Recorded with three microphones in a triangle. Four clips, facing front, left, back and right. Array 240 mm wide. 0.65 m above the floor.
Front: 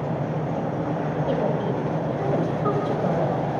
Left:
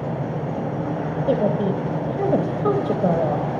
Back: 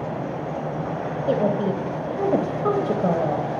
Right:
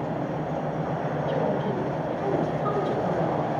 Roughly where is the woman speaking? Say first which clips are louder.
Left 7 dB, back 5 dB; behind left.